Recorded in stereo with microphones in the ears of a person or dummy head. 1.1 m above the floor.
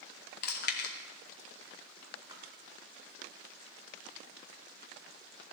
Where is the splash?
20° right (ahead or behind), 1.6 m.